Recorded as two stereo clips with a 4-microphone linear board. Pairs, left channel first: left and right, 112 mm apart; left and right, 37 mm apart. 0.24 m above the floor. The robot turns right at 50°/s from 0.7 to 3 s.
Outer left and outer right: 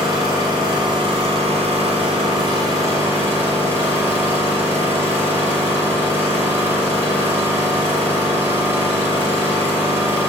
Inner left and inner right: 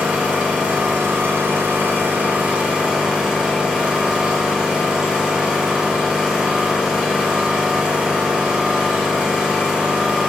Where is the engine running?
140° right, 2.5 m; by 10.3 s 25° right, 2.5 m.